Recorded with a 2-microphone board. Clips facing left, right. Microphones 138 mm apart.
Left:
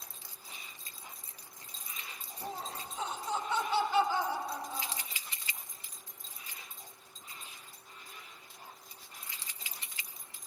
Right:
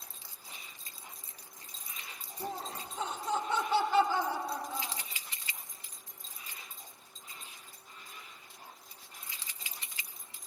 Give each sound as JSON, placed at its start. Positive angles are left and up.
{"t": 2.4, "sound": "laughter", "side_deg": -55, "distance_m": 1.4}